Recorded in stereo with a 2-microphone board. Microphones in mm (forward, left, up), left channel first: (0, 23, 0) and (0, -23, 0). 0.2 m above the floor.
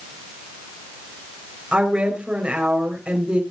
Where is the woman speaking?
25° right (ahead or behind), 4 m.